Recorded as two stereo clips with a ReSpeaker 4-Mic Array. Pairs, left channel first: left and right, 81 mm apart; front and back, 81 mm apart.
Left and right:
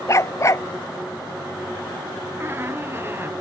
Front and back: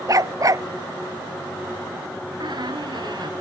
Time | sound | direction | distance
0.1 | a dog barking | 140° left | ?
2.4 | a squeak | 150° right | ?